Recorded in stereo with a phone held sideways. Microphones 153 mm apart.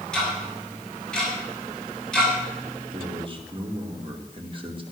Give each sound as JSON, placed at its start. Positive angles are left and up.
{"t": 0.1, "sound": "ticking", "side_deg": 5, "distance_m": 6.5}
{"t": 2.9, "sound": "a man speaking", "side_deg": -35, "distance_m": 2.5}